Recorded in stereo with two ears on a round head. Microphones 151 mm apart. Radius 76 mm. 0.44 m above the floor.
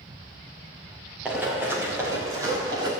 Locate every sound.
1.2 s running footsteps: 10° right (ahead or behind), 4 m; by 2.9 s 25° right (ahead or behind), 5 m